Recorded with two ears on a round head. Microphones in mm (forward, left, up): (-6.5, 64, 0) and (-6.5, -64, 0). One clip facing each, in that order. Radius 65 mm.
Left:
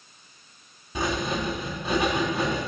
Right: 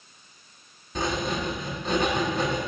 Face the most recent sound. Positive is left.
turn(degrees=10)  # may be behind; listen again after turning